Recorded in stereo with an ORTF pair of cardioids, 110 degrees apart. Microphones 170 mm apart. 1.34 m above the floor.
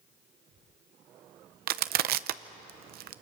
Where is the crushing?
65° right, 0.7 m.